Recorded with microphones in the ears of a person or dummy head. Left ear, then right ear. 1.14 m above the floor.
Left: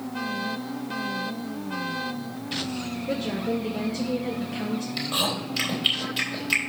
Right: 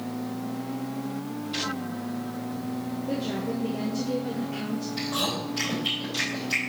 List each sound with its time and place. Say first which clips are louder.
3.1 s a woman speaking: left 3 dB; 30° left (ahead or behind), 0.8 m
5.0 s chewing: left 2 dB; 40° left (ahead or behind), 3.5 m